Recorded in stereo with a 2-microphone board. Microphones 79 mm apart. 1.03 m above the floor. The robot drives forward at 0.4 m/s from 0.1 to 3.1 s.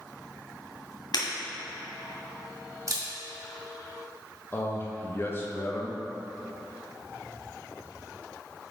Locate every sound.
1.1 s breaking glass: 65° left (ahead or behind), 1.9 m; by 1.2 s 60° left (ahead or behind), 2.0 m
2.9 s a camera shutter: 40° right (ahead or behind), 1.8 m
4.5 s a man speaking: 30° left (ahead or behind), 1.0 m